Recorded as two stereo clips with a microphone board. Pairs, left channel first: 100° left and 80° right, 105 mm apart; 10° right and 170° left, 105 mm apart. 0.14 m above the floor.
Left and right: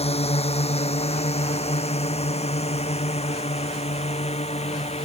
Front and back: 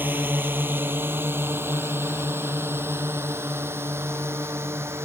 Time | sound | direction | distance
0.0 | a drone | 100° left | ?